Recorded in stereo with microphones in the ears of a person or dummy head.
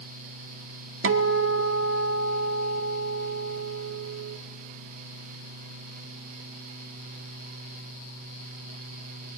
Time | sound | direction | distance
1.0 | a guitar | 65° right (ahead or behind) | 1.0 m